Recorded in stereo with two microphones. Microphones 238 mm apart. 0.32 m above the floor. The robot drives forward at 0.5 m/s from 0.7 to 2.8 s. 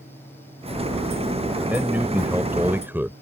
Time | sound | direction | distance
1.7 | a man speaking | 5° right (ahead or behind) | ?